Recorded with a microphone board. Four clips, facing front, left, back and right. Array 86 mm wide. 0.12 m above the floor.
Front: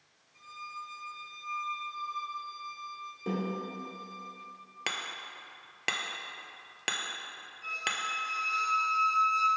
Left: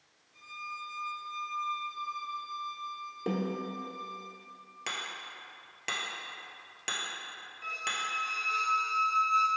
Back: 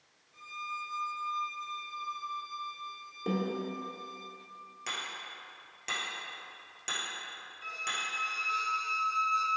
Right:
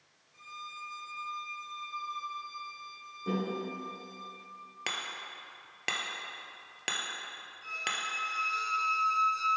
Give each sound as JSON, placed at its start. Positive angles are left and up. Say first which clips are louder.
{"t": 0.3, "sound": "a violin", "louder": "left 3 dB, back 3 dB", "azimuth_deg": 170, "distance_m": 1.1}
{"t": 3.3, "sound": "a snare drum", "louder": "even, back 1 dB", "azimuth_deg": 105, "distance_m": 1.4}
{"t": 4.9, "sound": "hammering", "louder": "even, front 2 dB", "azimuth_deg": -25, "distance_m": 0.5}
{"t": 7.6, "sound": "a squeak", "louder": "left 1 dB, front 3 dB", "azimuth_deg": 120, "distance_m": 0.8}